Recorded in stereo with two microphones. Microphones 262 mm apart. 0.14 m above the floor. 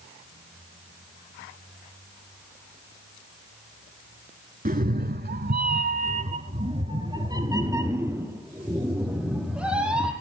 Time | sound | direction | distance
4.7 | a cat meowing | 35° right (ahead or behind) | 0.8 m